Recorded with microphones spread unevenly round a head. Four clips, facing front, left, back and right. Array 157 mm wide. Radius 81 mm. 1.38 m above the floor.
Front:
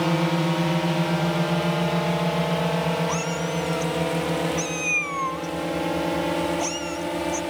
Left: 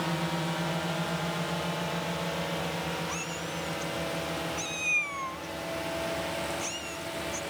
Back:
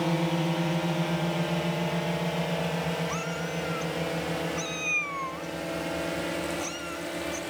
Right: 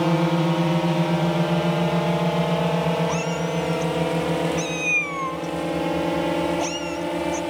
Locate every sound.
0.0 s a drone: 70° right; by 7.5 s 65° right
3.1 s a cat meowing: 60° right